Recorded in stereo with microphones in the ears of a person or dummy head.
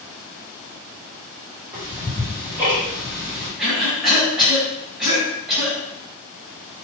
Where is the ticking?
10° right (ahead or behind), 1.8 m.